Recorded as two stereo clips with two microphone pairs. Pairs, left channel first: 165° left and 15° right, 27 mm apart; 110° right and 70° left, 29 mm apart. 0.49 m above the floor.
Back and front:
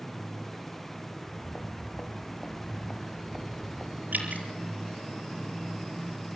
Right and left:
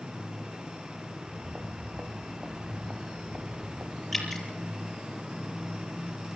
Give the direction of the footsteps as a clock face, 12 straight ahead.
7 o'clock.